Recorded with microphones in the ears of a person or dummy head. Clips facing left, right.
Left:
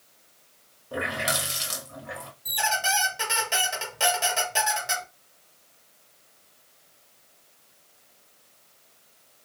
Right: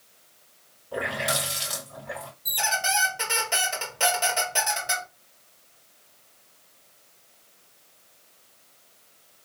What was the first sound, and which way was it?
A running tap, 65° left (ahead or behind).